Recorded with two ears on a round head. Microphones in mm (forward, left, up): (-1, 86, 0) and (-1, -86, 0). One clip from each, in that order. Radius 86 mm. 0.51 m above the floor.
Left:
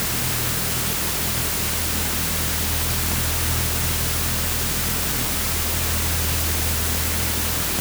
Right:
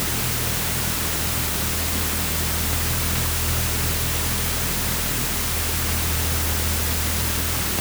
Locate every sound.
Only background noise.